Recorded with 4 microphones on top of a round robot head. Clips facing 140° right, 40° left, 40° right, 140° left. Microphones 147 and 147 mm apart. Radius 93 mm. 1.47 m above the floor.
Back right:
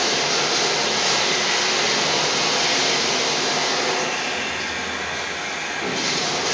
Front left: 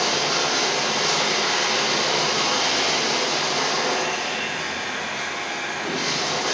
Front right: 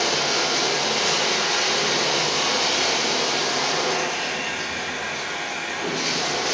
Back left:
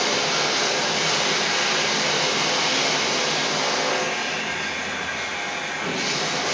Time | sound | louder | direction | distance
0.0 | running water | back right 1 dB, even | 80° right | 1.8 m